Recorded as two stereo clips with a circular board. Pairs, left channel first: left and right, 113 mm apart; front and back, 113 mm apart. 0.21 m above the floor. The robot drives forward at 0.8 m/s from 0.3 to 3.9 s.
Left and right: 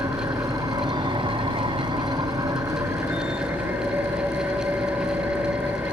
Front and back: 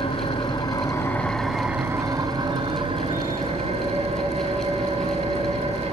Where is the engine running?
35° right, 1.3 m; by 5.9 s 160° right, 2 m.